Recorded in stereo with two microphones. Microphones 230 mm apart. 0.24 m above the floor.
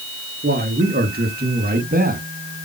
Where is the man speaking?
45° right (ahead or behind), 3.5 m; by 2.2 s 40° right (ahead or behind), 2.5 m.